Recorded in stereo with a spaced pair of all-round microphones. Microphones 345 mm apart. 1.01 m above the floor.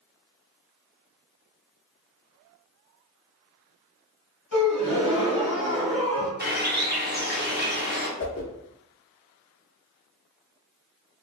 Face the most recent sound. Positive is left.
turn(degrees=40)  # may be behind; listen again after turning